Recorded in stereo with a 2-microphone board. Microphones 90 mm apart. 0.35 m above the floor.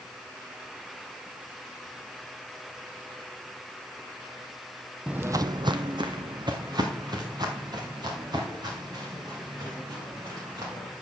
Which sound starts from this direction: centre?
Footsteps, at 5.1 s.